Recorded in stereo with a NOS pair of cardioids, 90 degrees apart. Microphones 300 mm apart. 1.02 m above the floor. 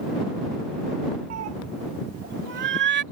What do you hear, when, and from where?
1.3 s a cat meowing: 60° right; by 3.0 s 35° right